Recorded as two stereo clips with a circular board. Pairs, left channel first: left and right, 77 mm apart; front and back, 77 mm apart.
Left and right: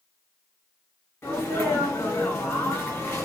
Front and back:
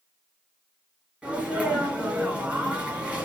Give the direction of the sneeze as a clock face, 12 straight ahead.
8 o'clock.